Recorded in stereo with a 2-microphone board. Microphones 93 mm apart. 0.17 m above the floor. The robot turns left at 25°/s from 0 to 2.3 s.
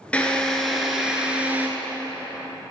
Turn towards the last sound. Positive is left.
turn(degrees=-40)